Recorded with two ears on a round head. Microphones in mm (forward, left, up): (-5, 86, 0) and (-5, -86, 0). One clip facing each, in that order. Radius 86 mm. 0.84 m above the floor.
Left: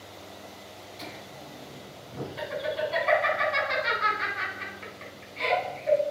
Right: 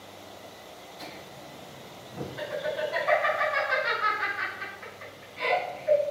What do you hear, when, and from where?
1.0 s laughter: 45° left (ahead or behind), 4 m